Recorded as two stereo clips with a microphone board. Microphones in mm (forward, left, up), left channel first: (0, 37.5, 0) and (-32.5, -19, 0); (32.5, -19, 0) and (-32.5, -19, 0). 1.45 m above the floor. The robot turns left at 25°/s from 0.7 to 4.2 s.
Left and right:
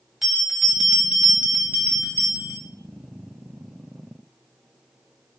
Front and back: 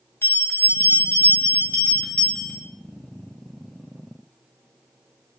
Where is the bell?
35° right, 1.7 m; by 2.6 s 80° right, 1.7 m.